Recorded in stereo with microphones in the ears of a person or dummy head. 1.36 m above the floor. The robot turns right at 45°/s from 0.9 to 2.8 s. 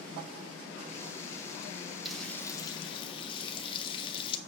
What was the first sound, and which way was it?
Frying, 5° right.